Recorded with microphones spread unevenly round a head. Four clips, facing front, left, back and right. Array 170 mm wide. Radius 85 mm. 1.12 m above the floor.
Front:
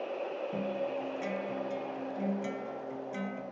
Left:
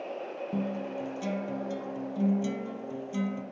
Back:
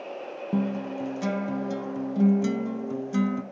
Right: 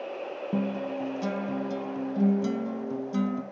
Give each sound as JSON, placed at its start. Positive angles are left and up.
{"t": 0.5, "sound": "a guitar", "azimuth_deg": -150, "distance_m": 0.6}